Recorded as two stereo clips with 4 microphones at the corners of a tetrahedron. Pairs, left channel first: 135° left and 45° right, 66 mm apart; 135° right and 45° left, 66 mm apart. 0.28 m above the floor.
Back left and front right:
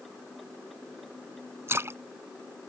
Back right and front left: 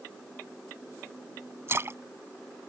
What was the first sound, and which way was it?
A splash, straight ahead.